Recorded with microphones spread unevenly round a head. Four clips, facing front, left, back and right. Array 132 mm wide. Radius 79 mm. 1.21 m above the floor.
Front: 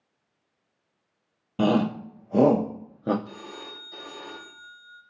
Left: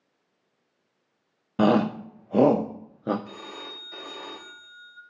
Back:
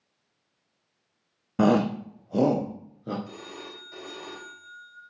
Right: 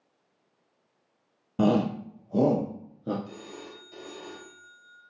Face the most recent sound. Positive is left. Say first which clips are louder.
# left 2 dB, front 1 dB
turn(degrees=105)